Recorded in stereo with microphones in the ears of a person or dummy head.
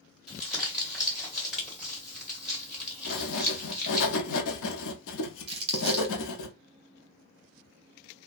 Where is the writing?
85° left, 0.7 m.